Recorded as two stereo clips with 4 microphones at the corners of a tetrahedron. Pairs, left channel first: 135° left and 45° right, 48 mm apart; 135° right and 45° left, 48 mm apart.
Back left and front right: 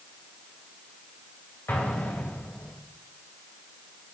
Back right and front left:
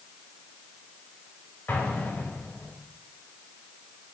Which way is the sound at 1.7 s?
Straight behind.